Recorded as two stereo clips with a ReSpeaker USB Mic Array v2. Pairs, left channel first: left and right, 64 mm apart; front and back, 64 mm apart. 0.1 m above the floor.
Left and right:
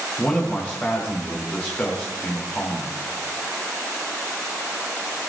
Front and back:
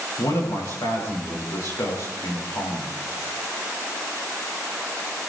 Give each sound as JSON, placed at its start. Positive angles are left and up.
{"t": 0.2, "sound": "a man speaking", "azimuth_deg": 25, "distance_m": 8.5}